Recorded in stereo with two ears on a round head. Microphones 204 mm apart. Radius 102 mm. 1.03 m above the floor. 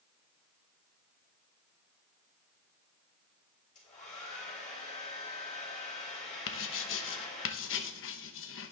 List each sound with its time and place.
3.8 s a hair dryer: 30° left (ahead or behind), 4.5 m
6.5 s writing: 60° left (ahead or behind), 1.0 m